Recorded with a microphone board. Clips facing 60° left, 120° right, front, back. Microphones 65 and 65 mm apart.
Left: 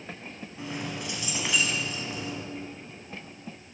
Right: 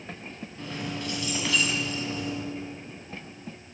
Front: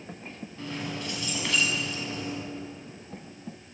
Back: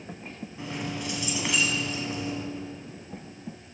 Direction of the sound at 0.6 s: 120° left.